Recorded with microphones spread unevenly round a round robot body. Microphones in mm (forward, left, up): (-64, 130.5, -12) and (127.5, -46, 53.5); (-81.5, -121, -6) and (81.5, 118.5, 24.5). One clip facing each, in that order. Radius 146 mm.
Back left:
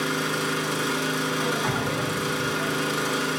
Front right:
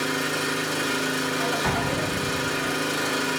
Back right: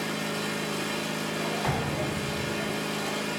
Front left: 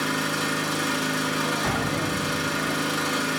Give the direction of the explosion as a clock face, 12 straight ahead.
12 o'clock.